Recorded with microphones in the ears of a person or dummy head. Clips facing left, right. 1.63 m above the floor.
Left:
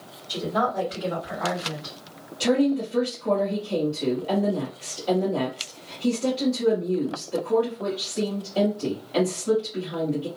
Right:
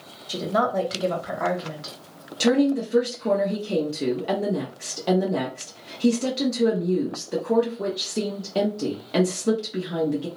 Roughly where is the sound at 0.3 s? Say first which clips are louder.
Right 2 dB; right.